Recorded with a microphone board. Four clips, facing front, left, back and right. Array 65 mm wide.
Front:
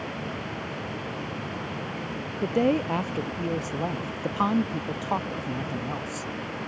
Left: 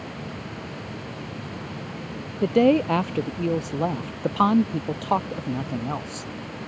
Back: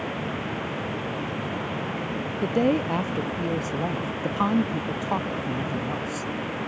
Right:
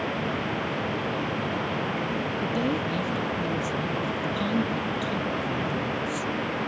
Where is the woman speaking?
90° left.